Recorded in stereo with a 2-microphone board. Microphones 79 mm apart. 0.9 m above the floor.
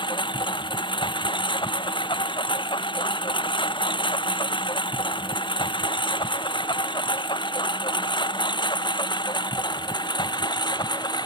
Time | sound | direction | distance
0.0 | a lawn mower | 80° left | ?